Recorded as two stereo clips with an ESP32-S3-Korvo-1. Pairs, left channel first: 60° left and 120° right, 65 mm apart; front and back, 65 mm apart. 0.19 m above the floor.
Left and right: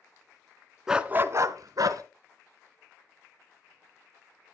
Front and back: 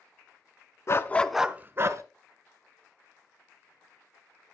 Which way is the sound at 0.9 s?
40° right.